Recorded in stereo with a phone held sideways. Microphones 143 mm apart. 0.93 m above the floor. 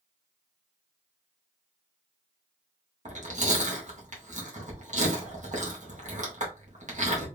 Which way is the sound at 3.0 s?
55° right (ahead or behind).